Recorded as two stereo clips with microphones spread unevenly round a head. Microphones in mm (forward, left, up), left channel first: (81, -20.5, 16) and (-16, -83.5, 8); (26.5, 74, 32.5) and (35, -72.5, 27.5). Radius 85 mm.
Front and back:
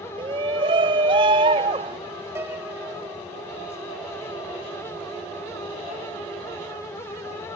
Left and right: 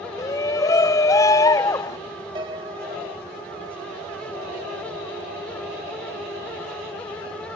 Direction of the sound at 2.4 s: 95° right.